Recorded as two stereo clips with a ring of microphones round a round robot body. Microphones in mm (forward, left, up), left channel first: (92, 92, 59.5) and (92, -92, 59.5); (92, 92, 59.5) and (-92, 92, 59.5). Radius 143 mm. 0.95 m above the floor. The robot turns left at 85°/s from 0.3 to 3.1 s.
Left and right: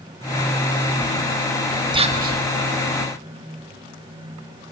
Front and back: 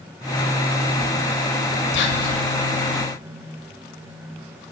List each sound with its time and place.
1.9 s whispering: 25° right, 1.6 m; by 2.4 s 65° right, 1.6 m